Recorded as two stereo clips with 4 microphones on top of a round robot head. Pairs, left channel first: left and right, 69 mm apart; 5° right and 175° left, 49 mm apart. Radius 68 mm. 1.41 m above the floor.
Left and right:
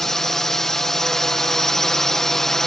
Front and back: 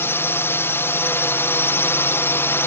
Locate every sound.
0.0 s a drone: 5° left